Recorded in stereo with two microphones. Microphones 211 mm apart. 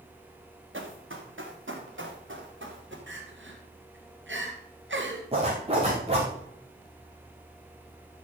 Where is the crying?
70° right (ahead or behind), 2.5 m.